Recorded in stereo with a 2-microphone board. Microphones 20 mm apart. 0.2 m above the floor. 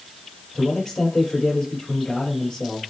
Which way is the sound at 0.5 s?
50° left (ahead or behind).